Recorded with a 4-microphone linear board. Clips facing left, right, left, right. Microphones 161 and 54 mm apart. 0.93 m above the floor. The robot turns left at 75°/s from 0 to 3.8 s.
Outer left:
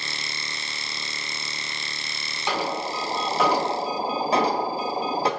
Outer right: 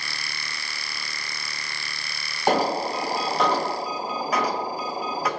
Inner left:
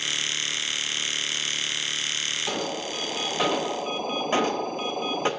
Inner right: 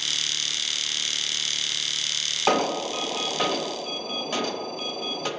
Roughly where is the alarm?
Behind right.